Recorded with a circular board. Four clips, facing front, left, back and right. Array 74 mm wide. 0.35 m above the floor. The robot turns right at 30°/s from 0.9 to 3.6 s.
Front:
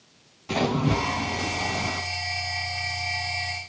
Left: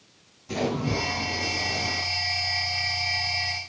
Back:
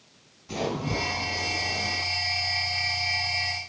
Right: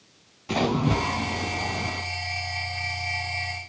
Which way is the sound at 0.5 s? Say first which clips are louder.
Right 3 dB, front 5 dB; 50° right.